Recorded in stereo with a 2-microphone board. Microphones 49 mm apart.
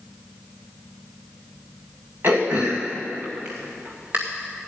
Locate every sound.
2.2 s throat clearing: 40° right (ahead or behind), 2 m